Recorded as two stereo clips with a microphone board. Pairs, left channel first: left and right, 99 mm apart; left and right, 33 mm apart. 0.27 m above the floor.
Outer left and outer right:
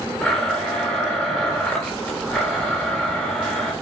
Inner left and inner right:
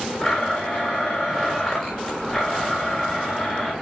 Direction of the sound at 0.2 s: 10° left (ahead or behind).